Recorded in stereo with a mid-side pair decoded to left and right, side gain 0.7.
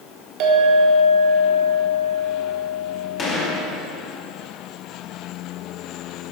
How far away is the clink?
About 1.6 m.